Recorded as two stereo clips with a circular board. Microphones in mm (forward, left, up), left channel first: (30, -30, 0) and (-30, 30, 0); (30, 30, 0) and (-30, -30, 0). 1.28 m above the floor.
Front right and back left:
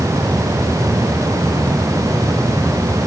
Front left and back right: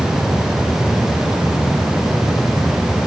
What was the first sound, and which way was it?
Only background noise.